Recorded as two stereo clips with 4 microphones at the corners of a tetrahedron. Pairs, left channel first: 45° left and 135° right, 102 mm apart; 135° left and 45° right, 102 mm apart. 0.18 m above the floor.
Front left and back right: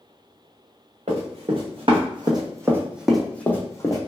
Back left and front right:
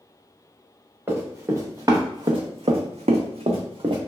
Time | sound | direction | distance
1.1 | running footsteps | 115° right | 1.2 m